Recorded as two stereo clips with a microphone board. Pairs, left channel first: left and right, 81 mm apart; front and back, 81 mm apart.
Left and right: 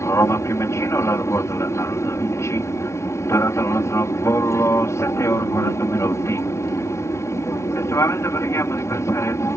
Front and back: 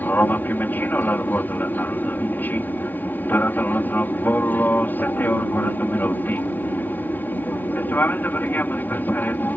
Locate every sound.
0.0 s an aircraft: 55° left